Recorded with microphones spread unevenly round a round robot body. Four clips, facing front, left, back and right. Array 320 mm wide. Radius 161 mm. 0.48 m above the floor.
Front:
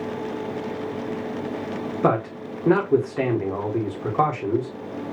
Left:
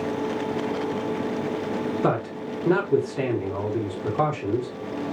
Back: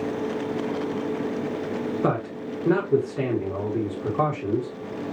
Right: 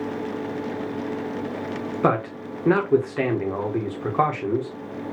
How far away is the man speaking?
About 1.3 m.